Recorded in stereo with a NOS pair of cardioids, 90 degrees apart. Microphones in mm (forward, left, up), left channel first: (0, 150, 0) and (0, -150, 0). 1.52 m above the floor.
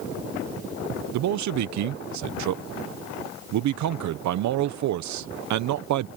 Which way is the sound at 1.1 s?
65° right.